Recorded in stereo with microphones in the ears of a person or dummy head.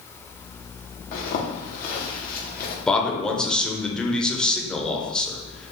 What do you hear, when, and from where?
1.1 s a zipper: 55° left (ahead or behind), 0.9 m
2.9 s a man speaking: centre (ahead or behind), 0.7 m